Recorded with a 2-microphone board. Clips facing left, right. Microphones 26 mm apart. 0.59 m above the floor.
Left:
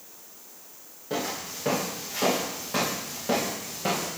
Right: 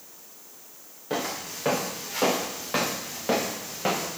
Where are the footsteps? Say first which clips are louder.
Right 1 dB; 35° right (ahead or behind), 4.5 m.